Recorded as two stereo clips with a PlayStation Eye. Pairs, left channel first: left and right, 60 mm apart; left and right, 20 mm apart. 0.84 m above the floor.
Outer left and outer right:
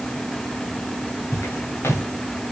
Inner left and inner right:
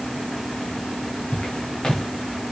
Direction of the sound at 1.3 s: 50° left (ahead or behind).